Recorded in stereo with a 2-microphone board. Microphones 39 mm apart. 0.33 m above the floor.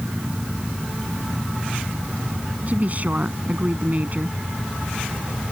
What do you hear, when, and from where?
2.7 s a woman speaking: 40° right (ahead or behind)